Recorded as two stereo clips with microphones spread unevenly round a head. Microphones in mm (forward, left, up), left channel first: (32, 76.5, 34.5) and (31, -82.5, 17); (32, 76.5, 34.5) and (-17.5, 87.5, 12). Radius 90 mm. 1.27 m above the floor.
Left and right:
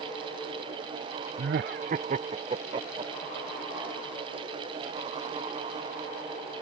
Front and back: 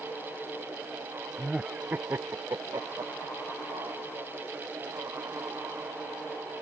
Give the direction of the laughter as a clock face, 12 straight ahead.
3 o'clock.